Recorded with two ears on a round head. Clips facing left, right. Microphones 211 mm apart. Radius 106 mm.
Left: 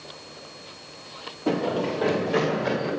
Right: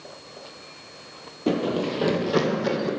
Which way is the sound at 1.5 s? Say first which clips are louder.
Right 1 dB; 20° right (ahead or behind).